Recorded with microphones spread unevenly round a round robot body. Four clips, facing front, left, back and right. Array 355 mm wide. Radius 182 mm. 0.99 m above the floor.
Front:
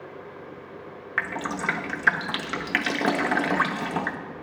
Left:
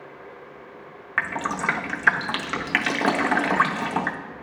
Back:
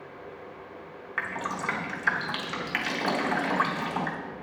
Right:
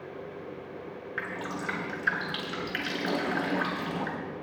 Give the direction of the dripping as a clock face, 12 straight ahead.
10 o'clock.